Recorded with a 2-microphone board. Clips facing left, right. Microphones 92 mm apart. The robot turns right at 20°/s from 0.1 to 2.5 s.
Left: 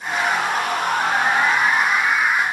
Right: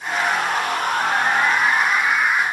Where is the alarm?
I don't hear an alarm.